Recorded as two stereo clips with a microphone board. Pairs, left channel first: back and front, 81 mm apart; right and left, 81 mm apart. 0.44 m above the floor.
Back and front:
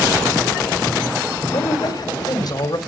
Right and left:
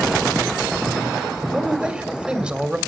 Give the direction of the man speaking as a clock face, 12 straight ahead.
7 o'clock.